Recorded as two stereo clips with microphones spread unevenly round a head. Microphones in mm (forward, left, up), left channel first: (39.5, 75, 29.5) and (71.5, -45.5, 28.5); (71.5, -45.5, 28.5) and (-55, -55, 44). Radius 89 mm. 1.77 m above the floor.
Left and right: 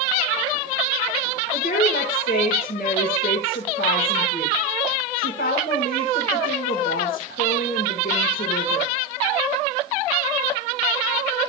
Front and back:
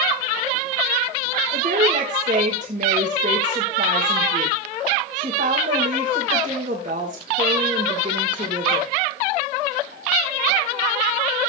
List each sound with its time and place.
1.5 s a woman speaking: 140° left, 2.5 m